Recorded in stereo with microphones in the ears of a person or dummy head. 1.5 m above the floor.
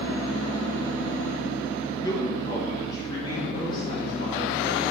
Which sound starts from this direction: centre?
A man speaking, at 2.0 s.